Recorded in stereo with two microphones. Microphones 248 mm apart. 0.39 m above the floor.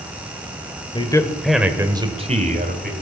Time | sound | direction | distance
0.9 | a man speaking | 20° left (ahead or behind) | 1.8 m